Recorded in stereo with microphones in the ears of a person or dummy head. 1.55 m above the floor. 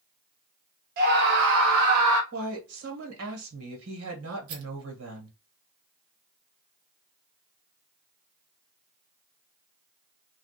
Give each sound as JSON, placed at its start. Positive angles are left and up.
{"t": 1.0, "sound": "a scream", "side_deg": -50, "distance_m": 1.2}
{"t": 2.3, "sound": "a woman speaking", "side_deg": -80, "distance_m": 1.5}
{"t": 4.5, "sound": "a rattle", "side_deg": -55, "distance_m": 0.8}